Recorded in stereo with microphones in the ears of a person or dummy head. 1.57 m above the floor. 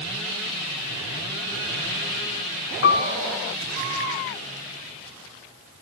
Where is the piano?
50° left (ahead or behind), 0.7 m.